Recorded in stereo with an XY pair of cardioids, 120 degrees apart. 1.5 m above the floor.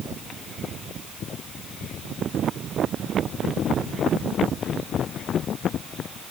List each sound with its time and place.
Only background noise.